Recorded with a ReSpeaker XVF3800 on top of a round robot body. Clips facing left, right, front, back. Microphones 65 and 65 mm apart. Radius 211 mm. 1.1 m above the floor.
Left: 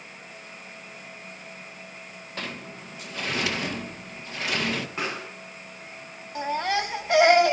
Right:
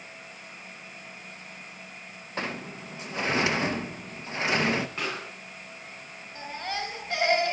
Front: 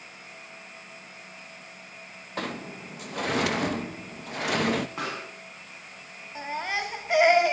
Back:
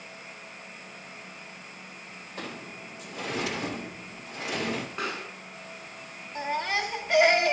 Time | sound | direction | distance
2.4 | a sliding door | 25° right | 0.7 m
5.0 | a pop | 10° left | 8 m
6.3 | a baby crying | 80° left | 0.9 m